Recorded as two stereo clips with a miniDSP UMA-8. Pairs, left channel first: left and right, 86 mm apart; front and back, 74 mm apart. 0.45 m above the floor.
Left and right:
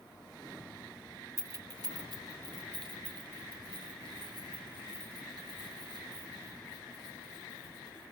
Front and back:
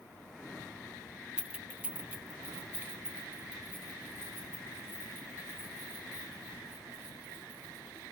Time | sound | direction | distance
1.4 | keys jangling | 115° right | 0.6 m